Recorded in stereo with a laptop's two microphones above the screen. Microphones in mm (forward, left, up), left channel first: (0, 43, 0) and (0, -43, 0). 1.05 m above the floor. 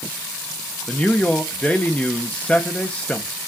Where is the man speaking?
20° left (ahead or behind), 0.8 m.